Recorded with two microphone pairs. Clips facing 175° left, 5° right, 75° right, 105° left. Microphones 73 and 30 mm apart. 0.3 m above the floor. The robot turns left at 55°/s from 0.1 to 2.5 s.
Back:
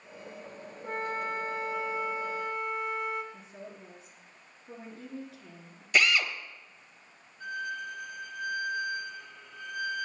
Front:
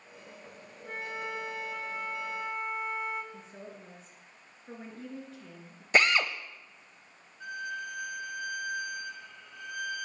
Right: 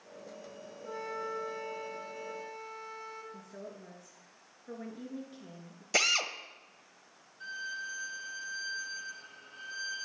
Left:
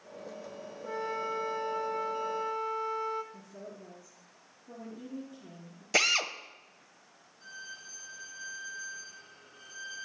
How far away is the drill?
About 0.6 m.